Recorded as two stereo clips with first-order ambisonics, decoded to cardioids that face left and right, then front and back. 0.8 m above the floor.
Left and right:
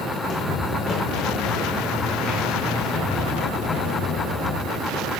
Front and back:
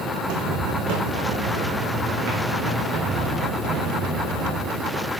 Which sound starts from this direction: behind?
Footsteps, at 0.2 s.